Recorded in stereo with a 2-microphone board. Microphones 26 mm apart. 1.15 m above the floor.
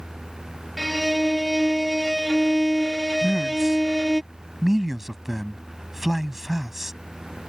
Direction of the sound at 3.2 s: 5° right (ahead or behind).